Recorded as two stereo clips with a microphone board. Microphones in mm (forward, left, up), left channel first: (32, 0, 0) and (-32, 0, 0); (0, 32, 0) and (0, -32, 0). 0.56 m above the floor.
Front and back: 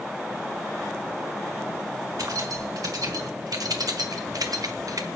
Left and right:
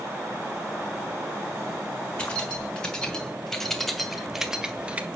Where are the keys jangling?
160° left, 3 m; by 5.1 s 155° right, 1.2 m.